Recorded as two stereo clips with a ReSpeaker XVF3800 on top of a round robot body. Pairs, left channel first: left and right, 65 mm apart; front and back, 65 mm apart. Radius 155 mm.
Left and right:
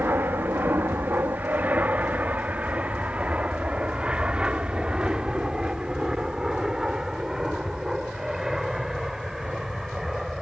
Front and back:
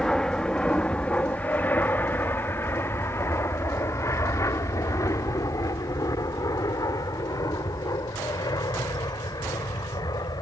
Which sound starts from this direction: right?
An aircraft, at 0.0 s.